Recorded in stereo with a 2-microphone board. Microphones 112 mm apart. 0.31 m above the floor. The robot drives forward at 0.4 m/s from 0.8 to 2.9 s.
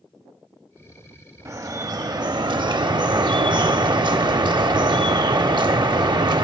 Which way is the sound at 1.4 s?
30° right (ahead or behind).